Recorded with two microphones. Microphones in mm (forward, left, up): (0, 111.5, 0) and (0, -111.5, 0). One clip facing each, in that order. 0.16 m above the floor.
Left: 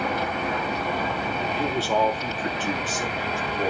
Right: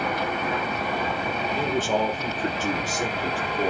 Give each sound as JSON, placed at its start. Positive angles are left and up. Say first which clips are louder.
{"t": 1.6, "sound": "a man speaking", "louder": "even", "side_deg": -50, "distance_m": 2.5}